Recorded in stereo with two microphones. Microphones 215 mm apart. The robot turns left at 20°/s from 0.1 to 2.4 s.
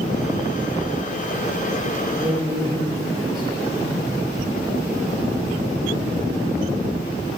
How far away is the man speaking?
About 4 m.